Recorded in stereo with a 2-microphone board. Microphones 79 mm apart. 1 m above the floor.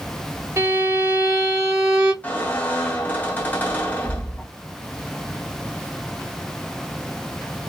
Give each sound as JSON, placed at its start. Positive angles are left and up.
{"t": 0.6, "sound": "a violin", "side_deg": -40, "distance_m": 1.2}
{"t": 2.2, "sound": "a squeak", "side_deg": 20, "distance_m": 1.5}